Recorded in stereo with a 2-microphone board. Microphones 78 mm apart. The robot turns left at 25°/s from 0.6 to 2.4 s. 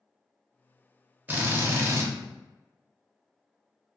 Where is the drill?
25° right (ahead or behind), 0.7 m; by 2.1 s 40° right (ahead or behind), 0.7 m.